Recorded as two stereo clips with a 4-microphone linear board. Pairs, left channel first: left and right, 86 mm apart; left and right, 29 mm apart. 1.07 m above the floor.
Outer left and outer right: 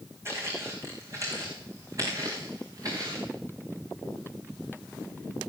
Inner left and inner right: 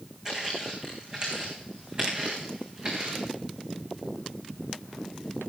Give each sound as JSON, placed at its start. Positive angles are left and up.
{"t": 0.2, "sound": "footsteps", "side_deg": -30, "distance_m": 4.5}